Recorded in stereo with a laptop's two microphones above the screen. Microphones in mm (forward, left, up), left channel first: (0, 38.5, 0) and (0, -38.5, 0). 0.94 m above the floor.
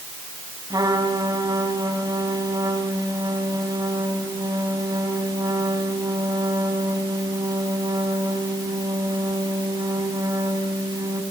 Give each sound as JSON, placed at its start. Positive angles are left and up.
{"t": 0.7, "sound": "a trumpet", "side_deg": -50, "distance_m": 6.0}